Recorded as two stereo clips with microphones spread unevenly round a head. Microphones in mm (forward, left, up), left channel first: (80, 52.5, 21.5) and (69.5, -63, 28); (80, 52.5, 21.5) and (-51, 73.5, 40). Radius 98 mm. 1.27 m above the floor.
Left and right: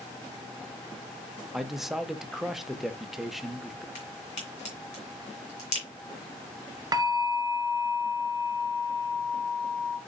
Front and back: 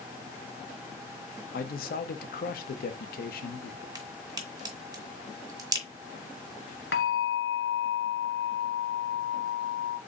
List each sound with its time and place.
1.5 s a man speaking: 5° right, 0.8 m
4.0 s a crack: 125° left, 1.7 m
6.9 s a bell: 40° right, 0.6 m